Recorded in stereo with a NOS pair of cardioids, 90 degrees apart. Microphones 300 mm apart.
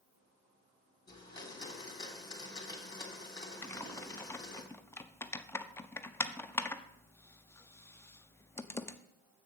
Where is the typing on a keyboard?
10° left, 0.7 m.